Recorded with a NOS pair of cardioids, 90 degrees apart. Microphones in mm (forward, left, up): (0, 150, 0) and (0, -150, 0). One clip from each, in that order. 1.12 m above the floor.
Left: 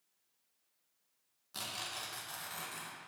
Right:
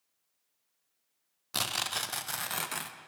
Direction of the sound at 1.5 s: 55° right.